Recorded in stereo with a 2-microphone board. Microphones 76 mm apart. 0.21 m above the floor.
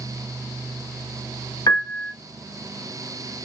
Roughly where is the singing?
No singing in this recording.